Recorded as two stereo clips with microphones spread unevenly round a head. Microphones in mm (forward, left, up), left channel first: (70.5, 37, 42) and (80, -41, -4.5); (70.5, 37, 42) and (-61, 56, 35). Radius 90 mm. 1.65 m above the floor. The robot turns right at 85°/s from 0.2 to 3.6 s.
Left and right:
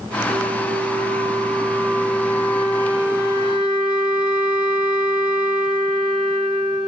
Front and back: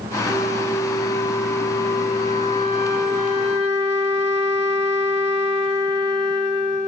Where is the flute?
145° right, 1.4 m; by 6.9 s 135° left, 1.4 m.